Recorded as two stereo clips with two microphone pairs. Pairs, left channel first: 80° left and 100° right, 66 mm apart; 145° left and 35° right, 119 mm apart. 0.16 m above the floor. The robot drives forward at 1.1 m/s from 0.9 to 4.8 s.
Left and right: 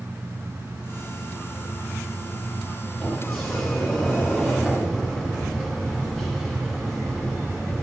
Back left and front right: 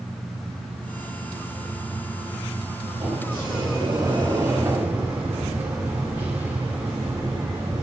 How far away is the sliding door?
About 3 m.